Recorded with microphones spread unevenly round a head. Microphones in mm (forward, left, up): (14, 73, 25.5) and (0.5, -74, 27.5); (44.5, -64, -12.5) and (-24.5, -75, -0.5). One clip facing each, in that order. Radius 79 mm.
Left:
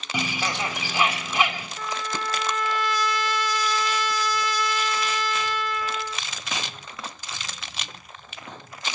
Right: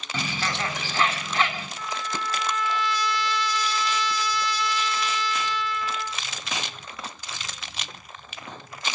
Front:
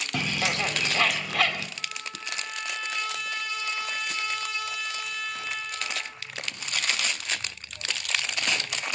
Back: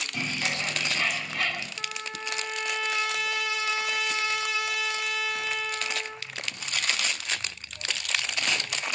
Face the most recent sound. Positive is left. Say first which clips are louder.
# left 2 dB, back 2 dB
turn(degrees=135)